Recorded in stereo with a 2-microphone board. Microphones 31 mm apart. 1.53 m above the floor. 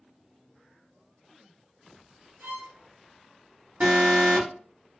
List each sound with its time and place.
2.4 s a violin: 90° right, 1.8 m
3.8 s an alarm: 60° right (ahead or behind), 1.6 m